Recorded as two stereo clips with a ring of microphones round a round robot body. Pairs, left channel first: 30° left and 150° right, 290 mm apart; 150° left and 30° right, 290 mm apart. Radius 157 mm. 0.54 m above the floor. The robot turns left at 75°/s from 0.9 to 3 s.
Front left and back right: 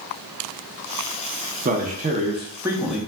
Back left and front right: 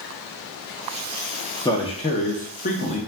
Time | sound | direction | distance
1.6 | a man speaking | 145° right | 0.6 m